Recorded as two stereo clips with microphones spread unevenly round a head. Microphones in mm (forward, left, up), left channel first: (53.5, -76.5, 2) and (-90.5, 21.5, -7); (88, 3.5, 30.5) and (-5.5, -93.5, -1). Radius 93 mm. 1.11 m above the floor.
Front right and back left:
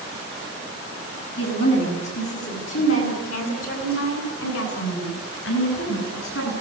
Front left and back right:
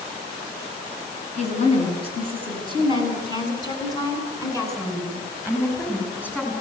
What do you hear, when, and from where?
1.4 s a woman speaking: 10° left, 9.5 m; by 6.5 s 30° right, 12 m